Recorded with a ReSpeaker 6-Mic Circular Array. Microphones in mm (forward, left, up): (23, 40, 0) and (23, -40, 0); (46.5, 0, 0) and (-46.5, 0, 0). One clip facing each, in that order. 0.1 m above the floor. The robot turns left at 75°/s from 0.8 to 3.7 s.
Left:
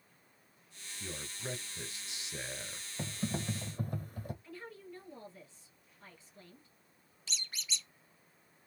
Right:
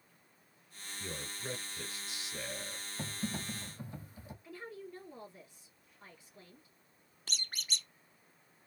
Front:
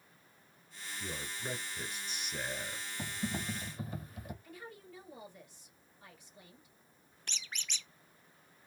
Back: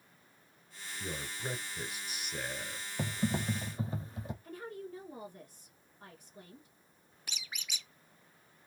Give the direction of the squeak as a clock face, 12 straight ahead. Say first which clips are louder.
Right 2 dB, even; 3 o'clock.